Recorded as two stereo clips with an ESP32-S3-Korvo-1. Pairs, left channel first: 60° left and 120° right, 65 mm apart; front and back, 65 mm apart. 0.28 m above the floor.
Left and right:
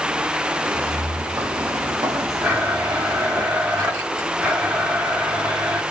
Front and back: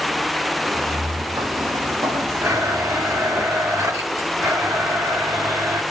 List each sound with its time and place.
0.6 s footsteps: 155° right, 1.8 m; by 3.4 s 165° right, 3 m
2.4 s a blender: straight behind, 2.5 m